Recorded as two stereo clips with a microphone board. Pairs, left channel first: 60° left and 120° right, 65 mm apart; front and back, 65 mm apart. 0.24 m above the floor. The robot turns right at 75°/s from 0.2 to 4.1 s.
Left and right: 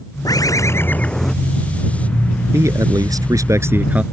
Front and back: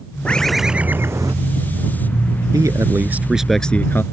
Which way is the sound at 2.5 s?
160° right.